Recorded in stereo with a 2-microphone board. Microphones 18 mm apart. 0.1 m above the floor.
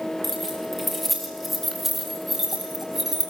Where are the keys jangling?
10° left (ahead or behind), 6.5 m; by 3.3 s 20° right (ahead or behind), 7 m.